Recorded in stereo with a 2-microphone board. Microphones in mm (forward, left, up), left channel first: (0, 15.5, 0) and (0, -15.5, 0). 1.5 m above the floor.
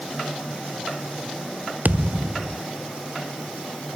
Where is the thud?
55° right (ahead or behind).